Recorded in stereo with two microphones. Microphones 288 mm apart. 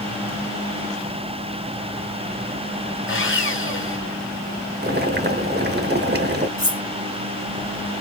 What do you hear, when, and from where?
3.1 s sawing: 45° left (ahead or behind), 1.3 m
4.8 s boiling: 35° right (ahead or behind), 0.7 m
6.6 s cutlery clinking: 65° right (ahead or behind), 1.8 m